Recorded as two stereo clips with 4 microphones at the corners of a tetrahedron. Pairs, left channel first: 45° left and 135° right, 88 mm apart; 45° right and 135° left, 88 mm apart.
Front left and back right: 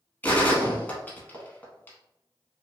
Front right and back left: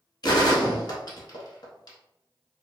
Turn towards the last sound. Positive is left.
turn(degrees=-25)